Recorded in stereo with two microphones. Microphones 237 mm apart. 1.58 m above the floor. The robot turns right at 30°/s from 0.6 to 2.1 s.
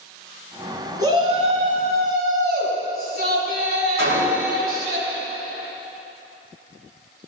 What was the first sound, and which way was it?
A shout, 165° right.